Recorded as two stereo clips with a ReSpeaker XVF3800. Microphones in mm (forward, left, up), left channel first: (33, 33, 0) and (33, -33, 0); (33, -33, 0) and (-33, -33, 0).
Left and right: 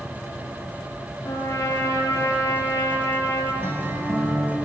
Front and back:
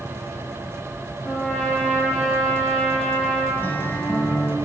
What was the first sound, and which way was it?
A trumpet, 70° left.